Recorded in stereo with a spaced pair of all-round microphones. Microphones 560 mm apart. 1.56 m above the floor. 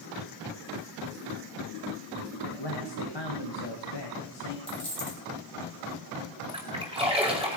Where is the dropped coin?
65° right (ahead or behind), 4.5 m.